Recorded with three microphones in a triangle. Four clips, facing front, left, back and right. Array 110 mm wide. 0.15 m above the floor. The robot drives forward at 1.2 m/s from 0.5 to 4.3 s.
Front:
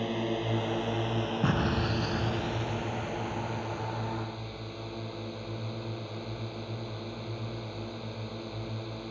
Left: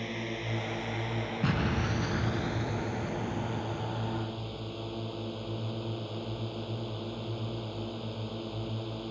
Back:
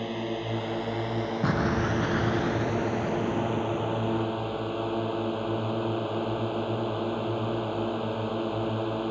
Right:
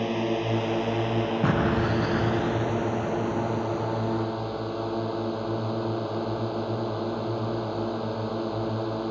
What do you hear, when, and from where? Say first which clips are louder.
0.0 s a drone: right 11 dB, even; 90° right; by 9.1 s 130° right
1.4 s an explosion: right 5 dB, back 4 dB; 105° right; by 5.0 s 170° right